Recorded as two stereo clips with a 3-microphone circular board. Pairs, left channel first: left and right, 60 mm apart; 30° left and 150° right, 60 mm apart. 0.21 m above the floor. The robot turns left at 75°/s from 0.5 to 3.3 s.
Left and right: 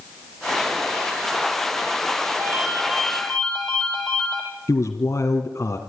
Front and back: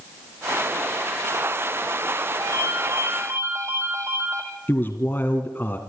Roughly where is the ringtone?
Behind right.